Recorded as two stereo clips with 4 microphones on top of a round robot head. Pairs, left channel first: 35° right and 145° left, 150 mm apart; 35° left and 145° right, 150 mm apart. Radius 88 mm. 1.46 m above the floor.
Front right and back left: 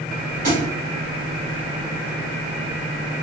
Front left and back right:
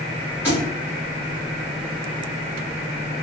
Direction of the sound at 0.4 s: 140° left.